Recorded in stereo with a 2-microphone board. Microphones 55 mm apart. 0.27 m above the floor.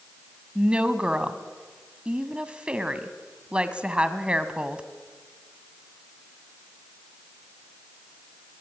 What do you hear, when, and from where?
0.6 s a woman speaking: 20° right (ahead or behind), 1.8 m